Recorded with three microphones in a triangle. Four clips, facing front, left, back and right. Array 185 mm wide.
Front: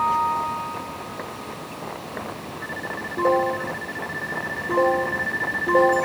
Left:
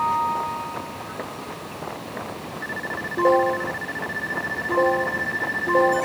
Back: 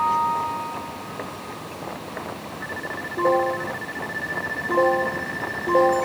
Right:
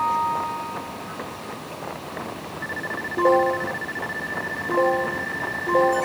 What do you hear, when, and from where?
Only background noise.